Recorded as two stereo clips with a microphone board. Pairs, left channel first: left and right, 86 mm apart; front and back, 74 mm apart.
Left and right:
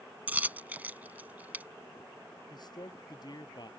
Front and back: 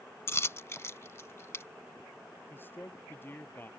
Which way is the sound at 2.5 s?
60° left.